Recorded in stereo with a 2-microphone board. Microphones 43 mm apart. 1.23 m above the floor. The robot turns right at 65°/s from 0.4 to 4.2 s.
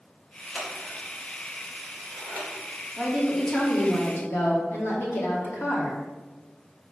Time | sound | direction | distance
0.6 | scissors | 20° left (ahead or behind) | 2.5 m
3.0 | a woman speaking | 20° right | 2.5 m